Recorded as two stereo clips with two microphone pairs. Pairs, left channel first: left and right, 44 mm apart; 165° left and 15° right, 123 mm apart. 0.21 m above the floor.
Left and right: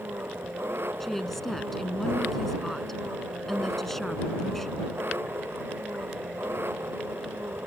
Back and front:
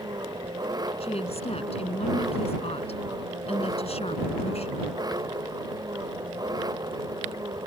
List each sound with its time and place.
0.0 s an engine running: 70° right
1.0 s a woman speaking: 170° left